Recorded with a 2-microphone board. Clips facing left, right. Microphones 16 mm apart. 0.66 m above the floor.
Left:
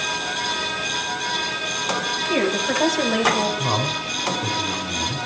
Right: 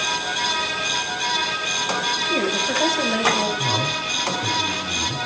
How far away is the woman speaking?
About 4.5 m.